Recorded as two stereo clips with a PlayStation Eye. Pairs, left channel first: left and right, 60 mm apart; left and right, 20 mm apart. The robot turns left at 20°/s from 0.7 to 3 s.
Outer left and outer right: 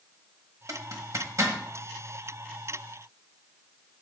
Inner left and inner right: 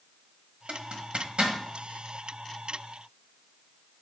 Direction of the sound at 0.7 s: 70° right (ahead or behind).